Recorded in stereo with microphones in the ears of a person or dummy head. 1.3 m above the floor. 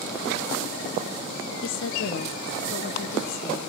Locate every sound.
1.6 s a woman speaking: 60° left (ahead or behind), 0.7 m; by 3.7 s 50° left (ahead or behind), 1.6 m